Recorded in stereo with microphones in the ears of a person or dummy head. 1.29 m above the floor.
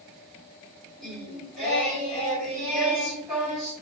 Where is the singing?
5° left (ahead or behind), 2 m.